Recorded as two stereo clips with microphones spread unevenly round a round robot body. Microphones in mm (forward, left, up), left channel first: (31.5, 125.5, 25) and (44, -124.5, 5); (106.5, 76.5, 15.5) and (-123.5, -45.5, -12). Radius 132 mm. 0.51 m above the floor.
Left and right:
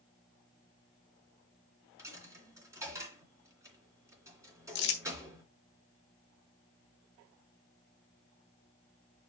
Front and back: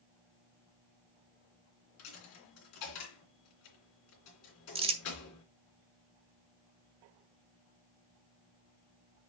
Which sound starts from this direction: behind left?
Crumpling, at 4.8 s.